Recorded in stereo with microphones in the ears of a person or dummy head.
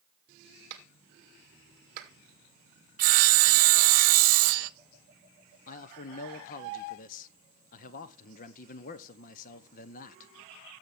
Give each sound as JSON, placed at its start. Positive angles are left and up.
{"t": 0.7, "sound": "a clap", "side_deg": -50, "distance_m": 1.8}
{"t": 3.0, "sound": "sawing", "side_deg": -45, "distance_m": 0.6}
{"t": 5.7, "sound": "a man speaking", "side_deg": 45, "distance_m": 0.9}